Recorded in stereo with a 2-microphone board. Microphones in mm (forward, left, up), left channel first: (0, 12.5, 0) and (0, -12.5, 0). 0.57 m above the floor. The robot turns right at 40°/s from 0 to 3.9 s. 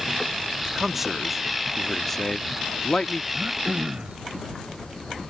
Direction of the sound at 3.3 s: 65° right (ahead or behind).